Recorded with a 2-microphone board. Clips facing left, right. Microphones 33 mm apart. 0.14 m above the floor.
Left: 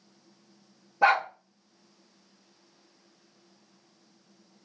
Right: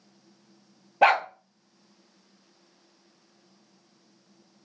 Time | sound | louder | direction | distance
1.0 | a dog barking | right 2 dB | 65° right (ahead or behind) | 0.8 m